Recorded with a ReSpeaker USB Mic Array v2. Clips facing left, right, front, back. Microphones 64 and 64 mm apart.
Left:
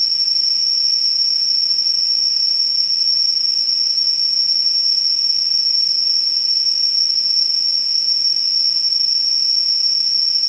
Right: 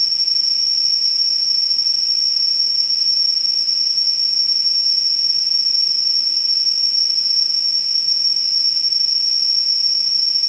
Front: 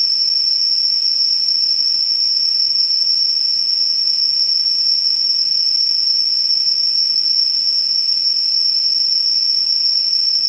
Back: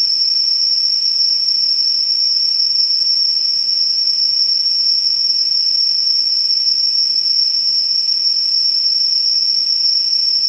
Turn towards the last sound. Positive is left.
turn(degrees=25)